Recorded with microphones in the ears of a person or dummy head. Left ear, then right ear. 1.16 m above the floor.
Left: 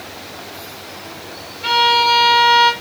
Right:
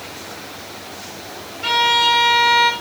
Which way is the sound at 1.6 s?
40° right (ahead or behind).